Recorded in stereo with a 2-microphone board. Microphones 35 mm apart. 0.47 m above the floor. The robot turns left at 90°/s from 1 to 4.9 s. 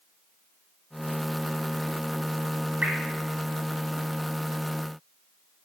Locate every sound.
2.8 s dripping: 45° right (ahead or behind), 0.8 m; by 3.0 s 60° right (ahead or behind), 0.8 m